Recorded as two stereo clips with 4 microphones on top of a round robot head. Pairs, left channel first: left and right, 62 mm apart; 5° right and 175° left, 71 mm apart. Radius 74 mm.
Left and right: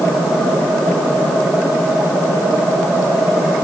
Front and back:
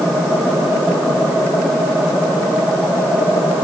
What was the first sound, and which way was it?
Only background noise.